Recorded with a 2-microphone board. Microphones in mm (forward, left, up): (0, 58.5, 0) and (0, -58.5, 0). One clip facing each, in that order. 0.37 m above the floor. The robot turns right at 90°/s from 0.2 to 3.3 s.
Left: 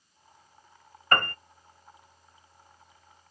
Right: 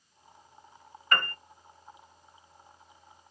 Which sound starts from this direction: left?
A piano, at 1.1 s.